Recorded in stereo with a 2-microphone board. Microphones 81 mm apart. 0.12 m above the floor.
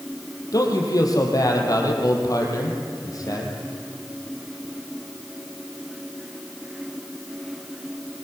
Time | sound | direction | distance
0.5 | a man speaking | 45° left (ahead or behind) | 4.5 m